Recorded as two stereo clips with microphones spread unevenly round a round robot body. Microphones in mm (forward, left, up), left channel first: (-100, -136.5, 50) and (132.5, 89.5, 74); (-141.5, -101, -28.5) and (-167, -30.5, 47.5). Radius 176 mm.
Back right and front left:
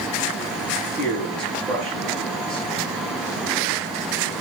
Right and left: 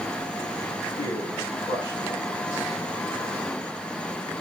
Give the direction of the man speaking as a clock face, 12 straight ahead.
2 o'clock.